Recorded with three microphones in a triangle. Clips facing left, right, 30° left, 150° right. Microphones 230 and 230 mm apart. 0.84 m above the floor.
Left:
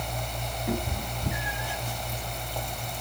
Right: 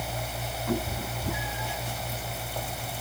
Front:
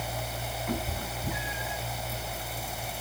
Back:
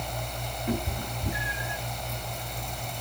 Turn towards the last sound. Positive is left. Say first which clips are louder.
# right 1 dB, back 4 dB
turn(degrees=160)